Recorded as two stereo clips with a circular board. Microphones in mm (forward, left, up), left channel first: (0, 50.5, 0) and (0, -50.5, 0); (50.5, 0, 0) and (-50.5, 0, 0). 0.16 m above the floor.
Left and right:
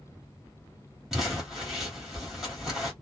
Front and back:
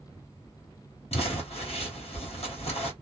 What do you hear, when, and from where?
1.1 s crumpling: 5° right, 1.6 m